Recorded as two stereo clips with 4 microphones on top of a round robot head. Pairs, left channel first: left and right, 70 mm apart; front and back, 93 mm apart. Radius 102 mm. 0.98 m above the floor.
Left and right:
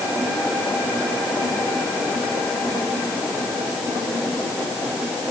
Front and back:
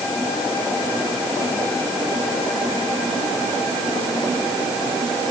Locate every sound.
Only background noise.